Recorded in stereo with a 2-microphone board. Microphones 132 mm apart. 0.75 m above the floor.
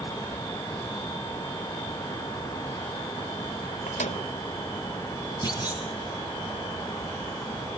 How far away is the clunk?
About 4 m.